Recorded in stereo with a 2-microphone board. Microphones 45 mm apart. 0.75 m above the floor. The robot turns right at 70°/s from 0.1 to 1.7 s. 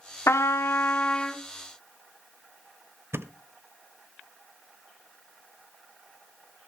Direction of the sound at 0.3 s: 90° left.